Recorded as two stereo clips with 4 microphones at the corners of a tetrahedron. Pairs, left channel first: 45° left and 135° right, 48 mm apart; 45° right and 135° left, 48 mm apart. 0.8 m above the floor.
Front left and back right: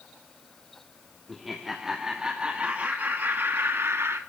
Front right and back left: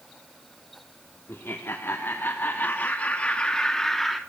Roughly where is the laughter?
Ahead right.